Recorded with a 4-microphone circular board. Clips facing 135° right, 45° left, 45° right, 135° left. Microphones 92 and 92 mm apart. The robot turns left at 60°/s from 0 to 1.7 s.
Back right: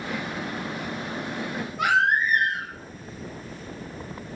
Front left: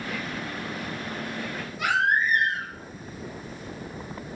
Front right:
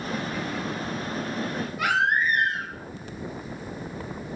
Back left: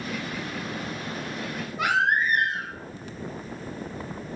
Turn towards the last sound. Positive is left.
turn(degrees=-165)